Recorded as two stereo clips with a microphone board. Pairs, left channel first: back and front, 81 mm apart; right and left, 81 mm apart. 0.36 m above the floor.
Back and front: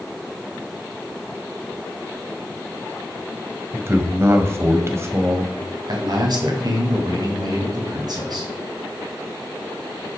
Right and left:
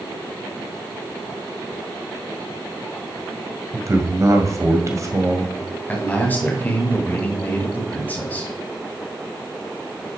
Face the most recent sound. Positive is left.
turn(degrees=-25)